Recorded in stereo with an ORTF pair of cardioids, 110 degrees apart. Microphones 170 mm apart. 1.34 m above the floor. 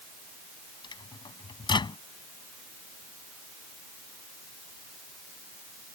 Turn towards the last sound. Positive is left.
turn(degrees=25)